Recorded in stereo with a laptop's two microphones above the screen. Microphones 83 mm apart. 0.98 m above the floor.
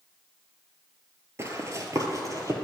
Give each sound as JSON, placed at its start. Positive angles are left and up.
{"t": 1.4, "sound": "running footsteps", "side_deg": -35, "distance_m": 1.2}